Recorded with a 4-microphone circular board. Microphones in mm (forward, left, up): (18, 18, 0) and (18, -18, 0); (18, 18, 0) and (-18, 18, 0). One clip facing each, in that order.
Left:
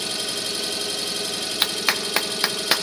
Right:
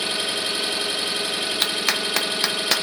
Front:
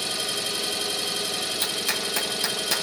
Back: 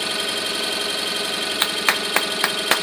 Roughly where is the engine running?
Behind right.